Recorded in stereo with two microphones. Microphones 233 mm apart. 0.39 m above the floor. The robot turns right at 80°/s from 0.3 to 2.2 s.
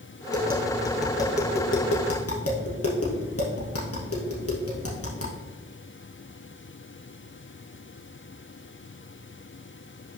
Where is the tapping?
55° right (ahead or behind), 2 m; by 5.3 s 85° left, 2 m.